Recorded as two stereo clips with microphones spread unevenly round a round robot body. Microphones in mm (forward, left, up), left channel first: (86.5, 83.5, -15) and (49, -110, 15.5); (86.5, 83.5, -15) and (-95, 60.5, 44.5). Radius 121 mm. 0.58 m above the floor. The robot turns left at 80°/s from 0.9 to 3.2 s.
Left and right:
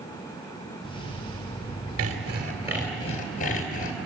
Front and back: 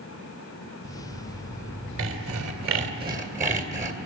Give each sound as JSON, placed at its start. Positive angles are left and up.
{"t": 2.0, "sound": "sawing", "azimuth_deg": -130, "distance_m": 2.0}